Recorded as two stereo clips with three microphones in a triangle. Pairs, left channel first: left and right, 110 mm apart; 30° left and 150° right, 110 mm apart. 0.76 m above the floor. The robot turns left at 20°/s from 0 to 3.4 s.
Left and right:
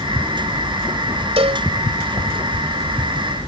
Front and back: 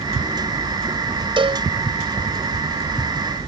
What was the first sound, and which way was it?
A cowbell, 115° right.